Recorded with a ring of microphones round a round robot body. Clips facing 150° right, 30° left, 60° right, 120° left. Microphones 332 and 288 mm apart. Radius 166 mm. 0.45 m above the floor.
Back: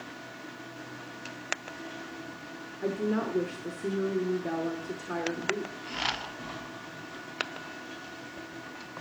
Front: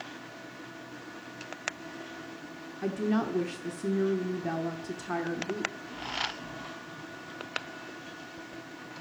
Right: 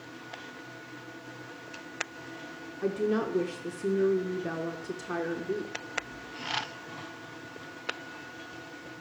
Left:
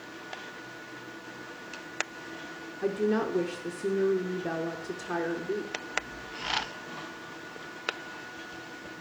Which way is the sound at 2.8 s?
15° left.